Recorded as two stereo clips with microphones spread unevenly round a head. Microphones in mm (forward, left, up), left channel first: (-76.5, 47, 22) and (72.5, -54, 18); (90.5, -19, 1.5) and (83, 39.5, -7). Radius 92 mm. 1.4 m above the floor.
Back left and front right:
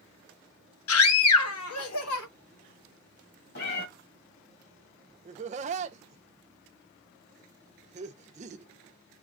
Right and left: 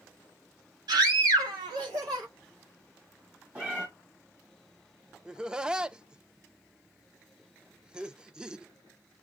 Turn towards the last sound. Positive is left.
turn(degrees=15)